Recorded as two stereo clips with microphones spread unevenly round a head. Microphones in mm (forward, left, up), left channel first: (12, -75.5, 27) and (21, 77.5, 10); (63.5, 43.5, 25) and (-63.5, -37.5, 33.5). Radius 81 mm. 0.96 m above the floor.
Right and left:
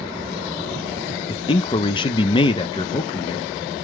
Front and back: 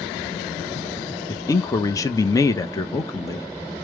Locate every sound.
1.3 s a man speaking: 30° right, 0.6 m